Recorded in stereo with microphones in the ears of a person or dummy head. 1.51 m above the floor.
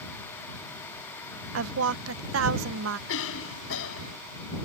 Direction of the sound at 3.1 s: 75° left (ahead or behind).